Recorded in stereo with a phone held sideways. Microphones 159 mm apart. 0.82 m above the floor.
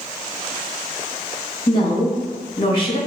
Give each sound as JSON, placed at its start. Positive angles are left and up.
{"t": 1.7, "sound": "a woman speaking", "side_deg": 35, "distance_m": 0.9}